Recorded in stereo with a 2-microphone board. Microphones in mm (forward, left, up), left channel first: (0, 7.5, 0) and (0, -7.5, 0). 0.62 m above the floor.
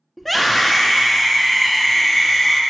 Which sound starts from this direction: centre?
A scream, at 0.2 s.